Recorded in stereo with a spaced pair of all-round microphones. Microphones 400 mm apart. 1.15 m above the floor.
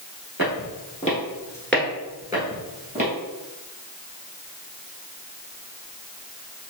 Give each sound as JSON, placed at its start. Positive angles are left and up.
{"t": 0.4, "sound": "footsteps", "side_deg": 30, "distance_m": 1.2}